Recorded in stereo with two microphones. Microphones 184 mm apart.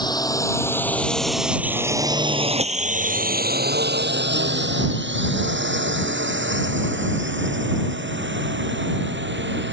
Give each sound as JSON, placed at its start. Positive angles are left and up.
{"t": 0.0, "sound": "a drone", "side_deg": 20}